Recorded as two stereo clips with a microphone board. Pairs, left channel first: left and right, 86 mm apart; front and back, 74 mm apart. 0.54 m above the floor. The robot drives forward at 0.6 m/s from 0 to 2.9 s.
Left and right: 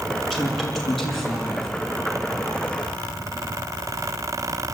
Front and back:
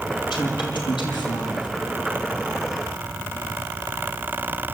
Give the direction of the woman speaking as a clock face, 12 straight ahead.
12 o'clock.